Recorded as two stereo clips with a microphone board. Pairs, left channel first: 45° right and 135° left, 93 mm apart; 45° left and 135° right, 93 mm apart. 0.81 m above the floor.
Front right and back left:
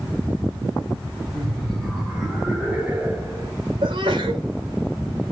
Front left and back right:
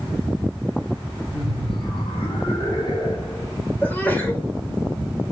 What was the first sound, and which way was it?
Laughter, 35° left.